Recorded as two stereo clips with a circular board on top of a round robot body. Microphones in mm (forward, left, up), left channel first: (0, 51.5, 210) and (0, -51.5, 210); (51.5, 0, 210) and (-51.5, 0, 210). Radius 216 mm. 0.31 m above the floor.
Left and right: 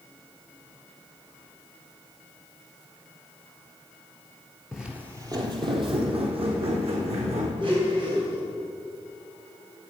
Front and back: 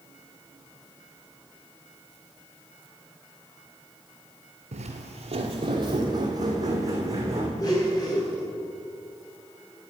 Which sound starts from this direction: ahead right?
A blender, at 7.6 s.